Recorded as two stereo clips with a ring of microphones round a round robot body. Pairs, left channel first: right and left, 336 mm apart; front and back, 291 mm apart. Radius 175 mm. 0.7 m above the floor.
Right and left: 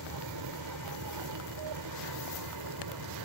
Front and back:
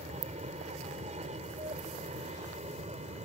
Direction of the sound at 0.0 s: 115° left.